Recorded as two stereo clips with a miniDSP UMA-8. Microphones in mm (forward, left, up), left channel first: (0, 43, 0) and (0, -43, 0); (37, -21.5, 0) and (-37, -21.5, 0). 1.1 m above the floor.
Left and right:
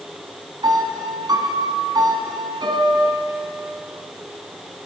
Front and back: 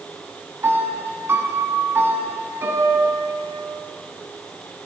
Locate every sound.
0.6 s a piano: 125° right, 3 m